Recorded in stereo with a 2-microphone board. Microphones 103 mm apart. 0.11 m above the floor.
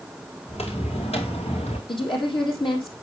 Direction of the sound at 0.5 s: 85° left.